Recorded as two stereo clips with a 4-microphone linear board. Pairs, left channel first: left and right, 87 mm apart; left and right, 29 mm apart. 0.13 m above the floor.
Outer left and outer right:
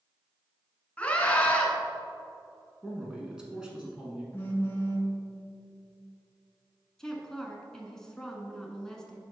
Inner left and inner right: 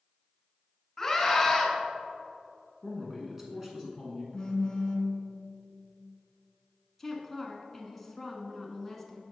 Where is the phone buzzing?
25° left (ahead or behind), 1.4 m.